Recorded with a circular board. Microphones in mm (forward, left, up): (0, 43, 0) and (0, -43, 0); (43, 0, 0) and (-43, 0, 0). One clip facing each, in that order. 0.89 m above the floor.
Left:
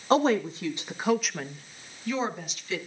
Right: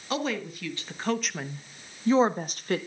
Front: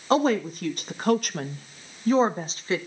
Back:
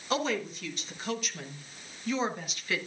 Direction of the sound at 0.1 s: 40° left.